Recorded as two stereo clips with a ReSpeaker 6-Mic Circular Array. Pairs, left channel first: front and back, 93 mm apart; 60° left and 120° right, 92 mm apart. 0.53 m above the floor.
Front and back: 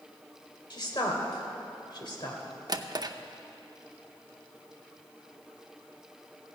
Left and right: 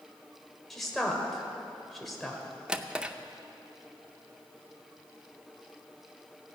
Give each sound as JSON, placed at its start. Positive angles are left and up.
{"t": 0.7, "sound": "a woman speaking", "azimuth_deg": -30, "distance_m": 1.9}
{"t": 2.7, "sound": "a drawer", "azimuth_deg": 165, "distance_m": 0.5}